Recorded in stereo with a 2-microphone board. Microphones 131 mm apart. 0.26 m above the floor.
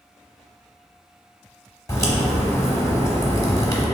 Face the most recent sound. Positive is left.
turn(degrees=25)  # may be behind; listen again after turning